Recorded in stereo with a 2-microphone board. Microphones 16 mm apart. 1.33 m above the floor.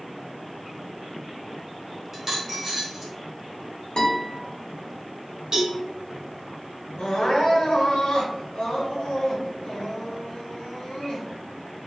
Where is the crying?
85° left, 0.8 m.